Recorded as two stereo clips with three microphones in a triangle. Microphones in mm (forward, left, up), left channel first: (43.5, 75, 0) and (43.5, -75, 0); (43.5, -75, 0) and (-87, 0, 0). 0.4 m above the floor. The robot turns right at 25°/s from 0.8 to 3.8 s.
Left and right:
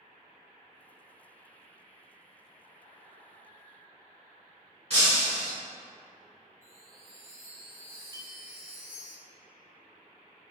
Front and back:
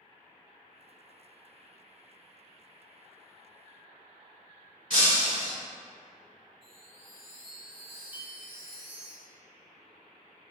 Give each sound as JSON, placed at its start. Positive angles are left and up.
{"t": 4.9, "sound": "breaking glass", "azimuth_deg": -50, "distance_m": 1.8}
{"t": 6.6, "sound": "a chime", "azimuth_deg": -75, "distance_m": 1.9}
{"t": 8.1, "sound": "a clink", "azimuth_deg": -50, "distance_m": 0.5}